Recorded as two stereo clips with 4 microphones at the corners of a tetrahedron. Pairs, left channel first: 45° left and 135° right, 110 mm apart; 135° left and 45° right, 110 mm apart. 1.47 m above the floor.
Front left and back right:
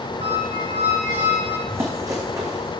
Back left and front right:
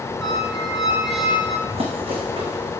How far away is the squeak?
About 4 m.